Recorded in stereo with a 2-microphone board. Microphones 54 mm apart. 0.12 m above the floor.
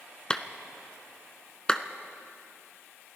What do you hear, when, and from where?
0.3 s a clap: 15° left (ahead or behind), 0.9 m